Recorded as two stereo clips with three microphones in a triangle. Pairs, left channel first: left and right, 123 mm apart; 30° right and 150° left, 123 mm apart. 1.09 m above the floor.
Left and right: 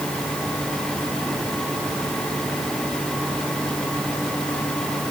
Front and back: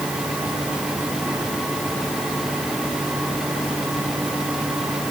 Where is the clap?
I don't hear a clap.